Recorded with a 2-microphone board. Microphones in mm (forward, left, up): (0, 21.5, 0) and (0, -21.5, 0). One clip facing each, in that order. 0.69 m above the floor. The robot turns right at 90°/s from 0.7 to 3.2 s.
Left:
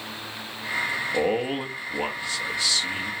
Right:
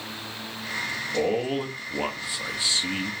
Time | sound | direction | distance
1.1 | a man speaking | 25° left (ahead or behind) | 0.8 m